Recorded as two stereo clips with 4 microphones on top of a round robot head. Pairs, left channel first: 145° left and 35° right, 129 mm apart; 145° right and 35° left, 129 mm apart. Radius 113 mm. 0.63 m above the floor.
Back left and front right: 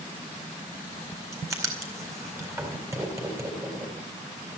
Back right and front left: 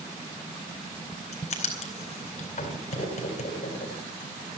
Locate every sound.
1.3 s writing: 105° right, 4 m